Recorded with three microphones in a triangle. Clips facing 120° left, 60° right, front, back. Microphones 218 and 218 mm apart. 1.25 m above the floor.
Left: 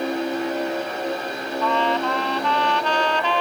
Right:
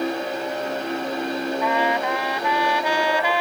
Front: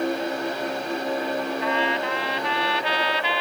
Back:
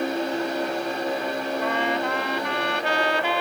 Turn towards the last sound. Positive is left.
turn(degrees=-140)